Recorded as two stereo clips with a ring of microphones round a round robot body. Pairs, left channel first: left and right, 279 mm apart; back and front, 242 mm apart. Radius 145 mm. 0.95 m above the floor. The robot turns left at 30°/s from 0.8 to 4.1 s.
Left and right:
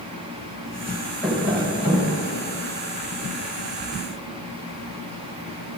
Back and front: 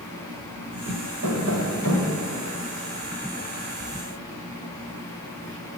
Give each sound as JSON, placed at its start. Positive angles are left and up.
{"t": 1.2, "sound": "tapping", "azimuth_deg": 0, "distance_m": 2.0}